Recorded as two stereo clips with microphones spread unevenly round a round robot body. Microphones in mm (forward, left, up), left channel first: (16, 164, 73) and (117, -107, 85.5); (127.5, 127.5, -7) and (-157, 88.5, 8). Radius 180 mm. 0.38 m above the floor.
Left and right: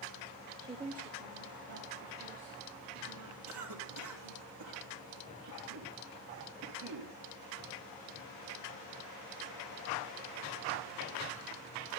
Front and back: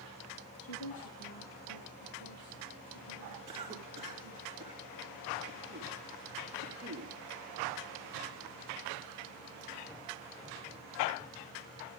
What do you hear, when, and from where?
0.6 s a woman speaking: 5° left, 1.7 m; by 4.5 s 45° right, 6.5 m
3.5 s a cough: 95° right, 4 m